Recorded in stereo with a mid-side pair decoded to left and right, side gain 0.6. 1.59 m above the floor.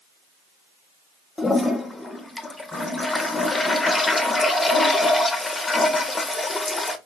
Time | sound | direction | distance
1.4 | a toilet flushing | 10° left | 0.6 m